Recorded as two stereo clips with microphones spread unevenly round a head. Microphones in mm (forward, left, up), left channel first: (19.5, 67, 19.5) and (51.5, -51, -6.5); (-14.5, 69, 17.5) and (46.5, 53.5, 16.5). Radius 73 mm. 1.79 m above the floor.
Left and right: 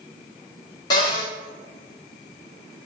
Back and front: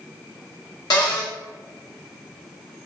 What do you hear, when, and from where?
0.9 s a cupboard door: 165° left, 1.0 m